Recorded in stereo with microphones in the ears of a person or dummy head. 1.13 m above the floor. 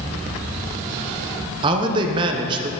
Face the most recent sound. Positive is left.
turn(degrees=-25)  # may be behind; listen again after turning